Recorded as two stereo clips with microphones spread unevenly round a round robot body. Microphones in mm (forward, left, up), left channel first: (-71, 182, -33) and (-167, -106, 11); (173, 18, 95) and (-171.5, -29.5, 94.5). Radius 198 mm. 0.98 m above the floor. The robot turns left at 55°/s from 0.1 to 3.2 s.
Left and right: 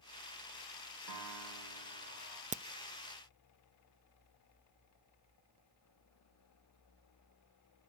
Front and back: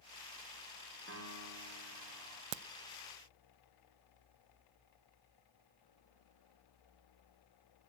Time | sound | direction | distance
1.1 | a piano | 115° right | 3.5 m
2.5 | a crack | straight behind | 0.6 m